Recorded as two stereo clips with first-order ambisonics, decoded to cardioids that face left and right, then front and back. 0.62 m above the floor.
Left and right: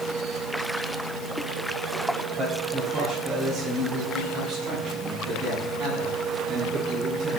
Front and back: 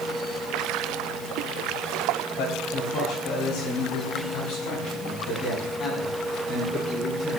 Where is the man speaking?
5° right, 3.5 m; by 7.4 s 40° right, 7 m.